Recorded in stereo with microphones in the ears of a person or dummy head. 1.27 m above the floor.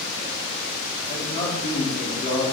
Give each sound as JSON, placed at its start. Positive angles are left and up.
{"t": 1.1, "sound": "a man speaking", "side_deg": 35, "distance_m": 3.0}